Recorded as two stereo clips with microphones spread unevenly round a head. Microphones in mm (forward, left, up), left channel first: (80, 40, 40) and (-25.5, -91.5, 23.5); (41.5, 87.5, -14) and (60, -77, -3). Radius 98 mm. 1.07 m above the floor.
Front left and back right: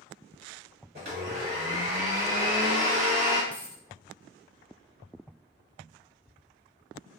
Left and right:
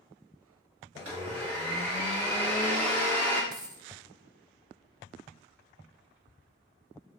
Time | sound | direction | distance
0.9 | a blender | 100° right | 1.5 m
3.5 | a dropped coin | 25° right | 0.5 m